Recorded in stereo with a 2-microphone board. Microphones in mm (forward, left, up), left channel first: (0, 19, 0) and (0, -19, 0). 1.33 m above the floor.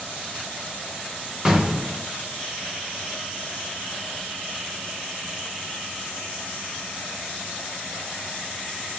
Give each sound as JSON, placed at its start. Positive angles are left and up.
{"t": 1.4, "sound": "an explosion", "side_deg": -20, "distance_m": 1.5}